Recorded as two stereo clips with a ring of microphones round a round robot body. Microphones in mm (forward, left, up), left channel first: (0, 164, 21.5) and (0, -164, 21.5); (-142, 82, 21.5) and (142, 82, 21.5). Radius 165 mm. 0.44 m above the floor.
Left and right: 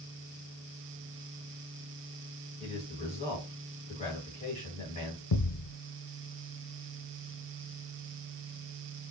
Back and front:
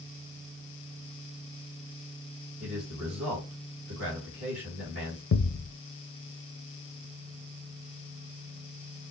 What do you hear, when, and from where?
2.6 s a man speaking: 20° left, 2.5 m
5.3 s a thud: 125° left, 0.7 m